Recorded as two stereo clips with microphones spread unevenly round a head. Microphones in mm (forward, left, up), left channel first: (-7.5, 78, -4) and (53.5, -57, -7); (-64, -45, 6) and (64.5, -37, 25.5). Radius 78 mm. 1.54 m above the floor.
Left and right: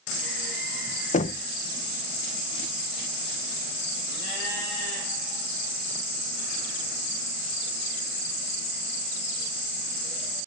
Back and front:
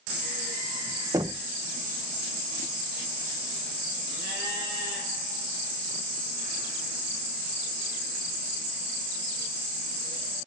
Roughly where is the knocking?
Left.